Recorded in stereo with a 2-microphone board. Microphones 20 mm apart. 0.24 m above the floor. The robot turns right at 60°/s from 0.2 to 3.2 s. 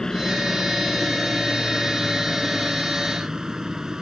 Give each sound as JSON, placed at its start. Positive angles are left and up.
{"t": 0.0, "sound": "a helicopter", "azimuth_deg": 30}